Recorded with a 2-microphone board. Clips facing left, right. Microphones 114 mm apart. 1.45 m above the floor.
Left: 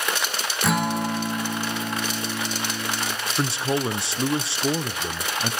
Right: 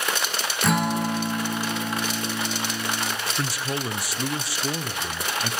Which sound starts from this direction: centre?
A guitar, at 0.6 s.